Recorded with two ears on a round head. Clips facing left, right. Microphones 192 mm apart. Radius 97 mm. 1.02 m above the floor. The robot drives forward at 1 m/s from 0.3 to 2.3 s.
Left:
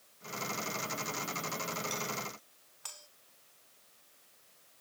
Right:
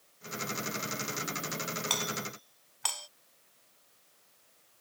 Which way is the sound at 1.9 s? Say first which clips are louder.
Right 2 dB; 85° right.